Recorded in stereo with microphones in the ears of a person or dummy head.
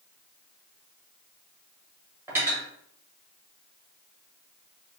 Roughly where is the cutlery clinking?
Centre.